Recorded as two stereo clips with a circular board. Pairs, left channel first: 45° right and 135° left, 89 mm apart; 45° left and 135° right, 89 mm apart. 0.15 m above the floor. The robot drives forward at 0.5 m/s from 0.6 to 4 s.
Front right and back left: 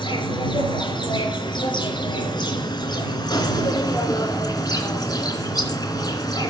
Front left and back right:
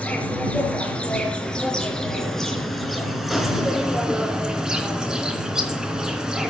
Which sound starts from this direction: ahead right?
An insect, at 0.0 s.